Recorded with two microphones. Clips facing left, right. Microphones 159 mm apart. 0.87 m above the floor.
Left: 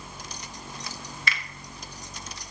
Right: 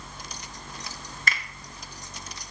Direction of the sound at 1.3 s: 45° right (ahead or behind).